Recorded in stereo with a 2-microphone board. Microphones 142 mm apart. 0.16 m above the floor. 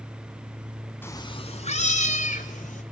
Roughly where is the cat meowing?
Centre.